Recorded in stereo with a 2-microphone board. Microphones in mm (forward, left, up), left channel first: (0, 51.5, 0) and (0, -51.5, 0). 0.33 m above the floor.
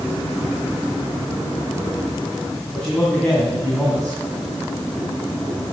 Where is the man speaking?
5° left (ahead or behind), 2.5 m.